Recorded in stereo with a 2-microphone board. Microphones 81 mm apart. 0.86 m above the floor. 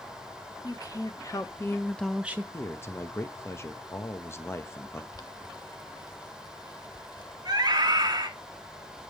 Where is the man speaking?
35° left (ahead or behind), 1.1 m.